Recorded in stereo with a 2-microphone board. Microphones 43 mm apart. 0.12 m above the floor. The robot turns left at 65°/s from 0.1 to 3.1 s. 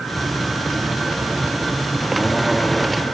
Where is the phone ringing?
No phone ringing in this recording.